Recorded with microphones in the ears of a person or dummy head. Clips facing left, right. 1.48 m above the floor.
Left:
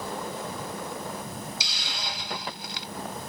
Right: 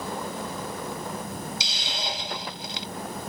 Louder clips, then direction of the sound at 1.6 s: Right 4 dB; 20° right (ahead or behind).